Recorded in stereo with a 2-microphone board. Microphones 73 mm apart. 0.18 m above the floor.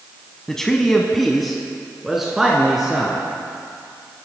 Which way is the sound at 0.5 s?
5° left (ahead or behind).